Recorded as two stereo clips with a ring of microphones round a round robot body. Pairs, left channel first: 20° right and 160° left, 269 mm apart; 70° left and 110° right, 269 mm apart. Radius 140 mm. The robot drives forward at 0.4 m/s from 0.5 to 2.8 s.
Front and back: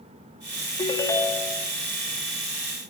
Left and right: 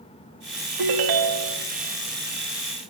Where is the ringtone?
95° right, 0.9 m; by 1.6 s 115° right, 1.0 m.